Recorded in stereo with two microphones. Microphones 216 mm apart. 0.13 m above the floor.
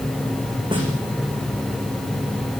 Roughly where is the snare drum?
Right.